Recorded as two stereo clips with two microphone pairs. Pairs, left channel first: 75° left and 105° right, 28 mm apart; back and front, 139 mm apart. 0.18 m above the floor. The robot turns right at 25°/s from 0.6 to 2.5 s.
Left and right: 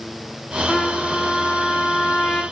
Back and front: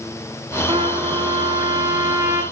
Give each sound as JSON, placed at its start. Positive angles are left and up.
{"t": 0.7, "sound": "a trumpet", "azimuth_deg": 15, "distance_m": 1.8}